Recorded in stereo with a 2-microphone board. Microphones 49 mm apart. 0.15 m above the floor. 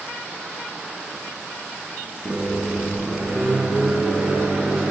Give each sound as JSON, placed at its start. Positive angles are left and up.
{"t": 2.2, "sound": "a microwave", "side_deg": -25, "distance_m": 1.0}